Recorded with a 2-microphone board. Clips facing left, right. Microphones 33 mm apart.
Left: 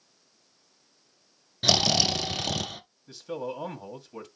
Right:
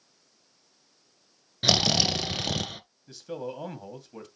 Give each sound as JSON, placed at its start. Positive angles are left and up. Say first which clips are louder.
{"t": 1.6, "sound": "snoring", "louder": "even", "side_deg": -10, "distance_m": 0.8}
{"t": 3.1, "sound": "a man speaking", "louder": "left 2 dB", "side_deg": 5, "distance_m": 2.0}